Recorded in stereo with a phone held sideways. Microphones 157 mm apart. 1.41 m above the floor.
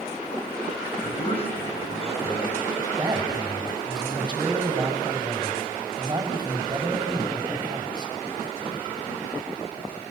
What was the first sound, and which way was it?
A man speaking, 40° left (ahead or behind).